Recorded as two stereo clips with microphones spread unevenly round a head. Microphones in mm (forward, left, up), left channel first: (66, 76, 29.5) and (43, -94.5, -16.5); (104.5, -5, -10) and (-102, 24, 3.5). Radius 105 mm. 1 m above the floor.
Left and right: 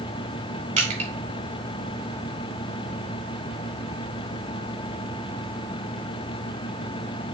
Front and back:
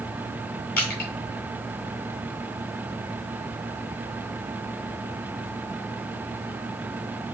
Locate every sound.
0.8 s crushing: 55° right, 3.5 m